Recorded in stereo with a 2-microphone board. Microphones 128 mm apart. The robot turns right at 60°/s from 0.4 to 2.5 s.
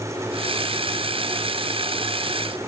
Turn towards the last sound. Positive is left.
No sound to turn to.